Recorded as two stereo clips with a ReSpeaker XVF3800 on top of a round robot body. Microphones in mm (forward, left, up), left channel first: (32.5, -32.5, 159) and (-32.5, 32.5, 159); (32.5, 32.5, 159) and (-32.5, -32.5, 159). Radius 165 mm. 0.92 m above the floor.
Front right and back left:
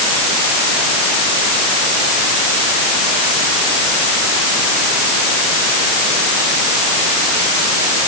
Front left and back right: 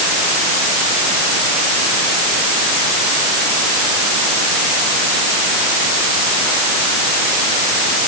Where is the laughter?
No laughter in this recording.